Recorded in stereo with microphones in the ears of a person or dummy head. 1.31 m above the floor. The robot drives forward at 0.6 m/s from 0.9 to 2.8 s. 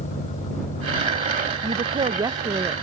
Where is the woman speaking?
20° right (ahead or behind); by 2.7 s 15° right (ahead or behind).